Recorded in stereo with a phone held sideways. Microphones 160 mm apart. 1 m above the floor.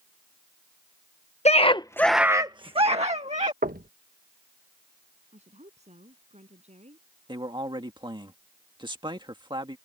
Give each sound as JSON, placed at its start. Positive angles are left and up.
{"t": 1.4, "sound": "a scream", "side_deg": 40}
{"t": 3.6, "sound": "knocking", "side_deg": -60}
{"t": 5.3, "sound": "a woman speaking", "side_deg": -40}
{"t": 7.3, "sound": "a man speaking", "side_deg": -25}